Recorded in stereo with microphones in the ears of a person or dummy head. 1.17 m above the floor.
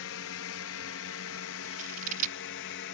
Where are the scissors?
40° right (ahead or behind).